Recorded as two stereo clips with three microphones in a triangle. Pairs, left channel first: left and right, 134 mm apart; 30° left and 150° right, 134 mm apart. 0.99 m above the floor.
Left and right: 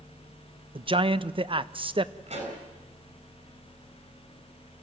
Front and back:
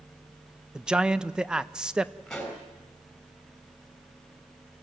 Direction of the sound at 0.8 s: 70° right.